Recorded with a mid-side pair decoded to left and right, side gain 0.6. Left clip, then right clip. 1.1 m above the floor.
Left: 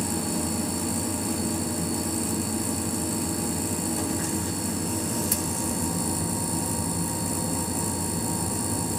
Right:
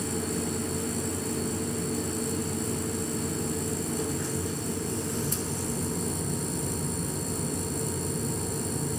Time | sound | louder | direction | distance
0.0 | a machine running | left 2 dB | 70° left | 2.5 m